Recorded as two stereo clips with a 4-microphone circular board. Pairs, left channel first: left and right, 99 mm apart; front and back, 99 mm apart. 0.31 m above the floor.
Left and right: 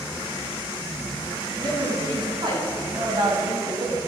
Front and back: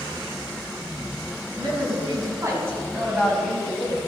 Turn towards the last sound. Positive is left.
turn(degrees=-55)